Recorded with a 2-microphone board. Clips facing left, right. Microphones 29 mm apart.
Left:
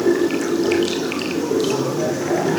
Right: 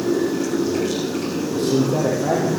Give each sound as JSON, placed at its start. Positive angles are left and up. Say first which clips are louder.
{"t": 0.0, "sound": "running water", "louder": "left 3 dB", "side_deg": 75, "distance_m": 4.0}
{"t": 1.5, "sound": "a man speaking", "louder": "right 3 dB", "side_deg": -50, "distance_m": 7.5}